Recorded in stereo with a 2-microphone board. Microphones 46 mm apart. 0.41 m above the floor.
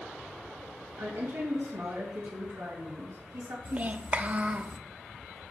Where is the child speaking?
30° right (ahead or behind), 0.5 m.